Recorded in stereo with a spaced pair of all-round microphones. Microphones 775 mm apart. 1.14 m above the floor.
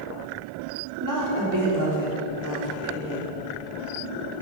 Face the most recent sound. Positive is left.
turn(degrees=-25)  # may be behind; listen again after turning